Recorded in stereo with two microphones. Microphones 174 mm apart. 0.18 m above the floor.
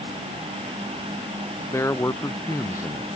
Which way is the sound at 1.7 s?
15° left (ahead or behind).